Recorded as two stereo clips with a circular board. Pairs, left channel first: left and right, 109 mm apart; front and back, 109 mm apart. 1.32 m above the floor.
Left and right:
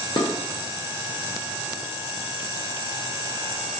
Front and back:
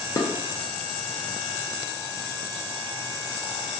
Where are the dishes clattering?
50° left, 0.5 m.